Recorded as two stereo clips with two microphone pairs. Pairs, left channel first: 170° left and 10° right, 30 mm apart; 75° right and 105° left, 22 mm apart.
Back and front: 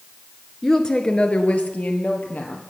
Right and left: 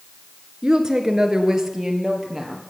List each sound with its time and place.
0.6 s a woman speaking: 115° left, 1.3 m; by 2.6 s 170° left, 3 m